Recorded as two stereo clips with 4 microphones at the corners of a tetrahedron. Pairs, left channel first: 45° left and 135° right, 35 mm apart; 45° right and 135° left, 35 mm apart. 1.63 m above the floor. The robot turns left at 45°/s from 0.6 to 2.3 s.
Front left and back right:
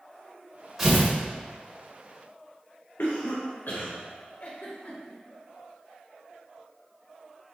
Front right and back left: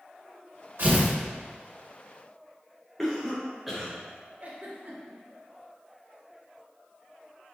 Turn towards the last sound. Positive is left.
turn(degrees=90)